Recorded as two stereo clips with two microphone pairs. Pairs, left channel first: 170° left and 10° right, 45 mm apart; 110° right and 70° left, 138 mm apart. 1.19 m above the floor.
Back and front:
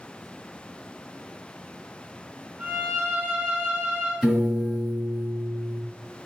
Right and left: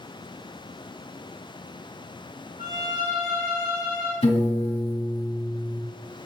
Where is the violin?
45° left, 2 m.